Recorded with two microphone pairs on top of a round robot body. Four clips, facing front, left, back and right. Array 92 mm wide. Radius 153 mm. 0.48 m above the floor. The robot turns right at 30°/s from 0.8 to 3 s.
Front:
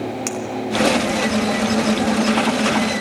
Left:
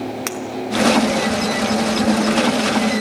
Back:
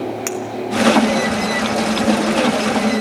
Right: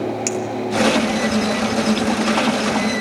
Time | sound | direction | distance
0.3 | a clink | 110° left | 3.5 m